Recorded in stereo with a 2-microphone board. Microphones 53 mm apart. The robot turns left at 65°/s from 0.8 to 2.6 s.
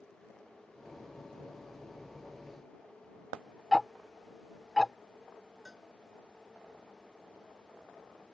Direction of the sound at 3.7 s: Centre (ahead or behind).